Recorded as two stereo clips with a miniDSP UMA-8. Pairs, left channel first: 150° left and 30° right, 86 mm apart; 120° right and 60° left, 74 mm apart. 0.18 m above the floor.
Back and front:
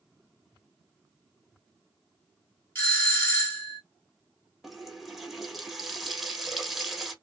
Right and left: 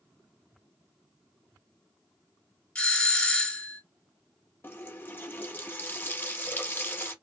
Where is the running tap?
110° right, 0.7 m.